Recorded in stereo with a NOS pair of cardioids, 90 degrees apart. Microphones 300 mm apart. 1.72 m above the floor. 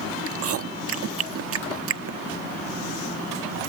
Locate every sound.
0.3 s chewing: 50° right, 0.8 m